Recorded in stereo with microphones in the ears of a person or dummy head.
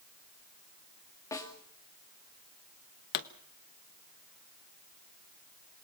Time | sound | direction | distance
1.3 | a snare drum | 15° left (ahead or behind) | 2.5 m
3.1 | a pop | 55° left (ahead or behind) | 1.1 m